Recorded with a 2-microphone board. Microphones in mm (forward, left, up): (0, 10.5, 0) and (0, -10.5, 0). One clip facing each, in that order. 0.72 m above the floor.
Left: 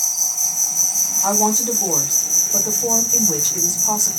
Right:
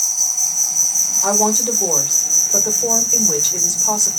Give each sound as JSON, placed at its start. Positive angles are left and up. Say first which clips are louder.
{"t": 0.0, "sound": "an insect", "louder": "right 2 dB", "side_deg": -25, "distance_m": 1.0}
{"t": 1.2, "sound": "a woman speaking", "louder": "right 1 dB", "side_deg": -45, "distance_m": 1.3}